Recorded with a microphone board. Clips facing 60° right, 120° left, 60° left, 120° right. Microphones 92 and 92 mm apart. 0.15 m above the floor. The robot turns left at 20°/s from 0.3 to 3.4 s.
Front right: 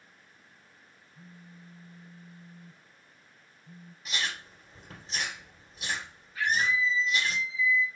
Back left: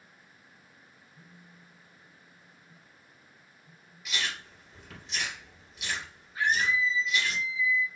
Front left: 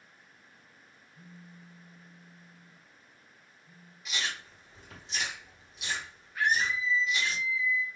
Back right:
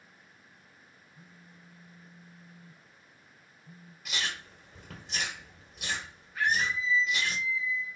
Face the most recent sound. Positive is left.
turn(degrees=150)